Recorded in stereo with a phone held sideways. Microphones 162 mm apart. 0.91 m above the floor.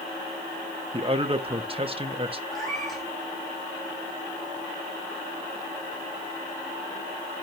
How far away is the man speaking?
About 1.2 m.